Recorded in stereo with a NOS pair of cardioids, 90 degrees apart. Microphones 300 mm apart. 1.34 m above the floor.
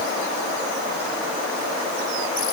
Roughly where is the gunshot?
No gunshot in this recording.